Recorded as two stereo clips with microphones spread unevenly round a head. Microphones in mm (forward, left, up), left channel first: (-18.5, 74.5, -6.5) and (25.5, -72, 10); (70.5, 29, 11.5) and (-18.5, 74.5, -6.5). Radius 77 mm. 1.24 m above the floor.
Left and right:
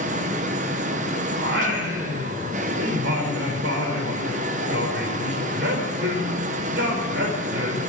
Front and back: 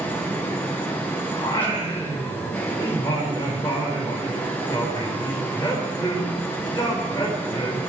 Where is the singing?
95° right, 4.5 m.